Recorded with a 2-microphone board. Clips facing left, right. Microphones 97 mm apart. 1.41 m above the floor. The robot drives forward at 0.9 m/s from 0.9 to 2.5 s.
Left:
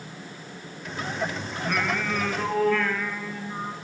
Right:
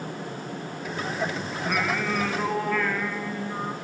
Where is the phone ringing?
No phone ringing in this recording.